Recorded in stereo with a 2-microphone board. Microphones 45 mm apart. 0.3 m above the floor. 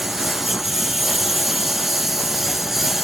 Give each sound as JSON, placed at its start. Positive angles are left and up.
{"t": 0.0, "sound": "a lawn mower", "side_deg": -5}